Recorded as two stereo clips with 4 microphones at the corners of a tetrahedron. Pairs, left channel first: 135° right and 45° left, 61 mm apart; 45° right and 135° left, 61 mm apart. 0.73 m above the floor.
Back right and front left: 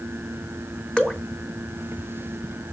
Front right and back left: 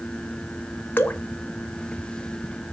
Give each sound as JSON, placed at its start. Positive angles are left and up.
{"t": 1.0, "sound": "dripping", "azimuth_deg": -70, "distance_m": 1.1}